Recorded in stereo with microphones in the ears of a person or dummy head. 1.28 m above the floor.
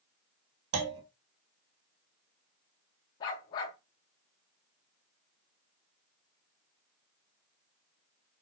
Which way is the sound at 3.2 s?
20° left (ahead or behind).